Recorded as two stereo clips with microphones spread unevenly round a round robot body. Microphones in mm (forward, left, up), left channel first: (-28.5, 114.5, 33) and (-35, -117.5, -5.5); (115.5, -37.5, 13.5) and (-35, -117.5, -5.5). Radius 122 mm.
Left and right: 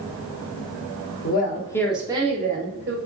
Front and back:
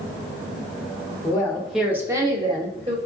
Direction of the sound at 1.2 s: 95° left.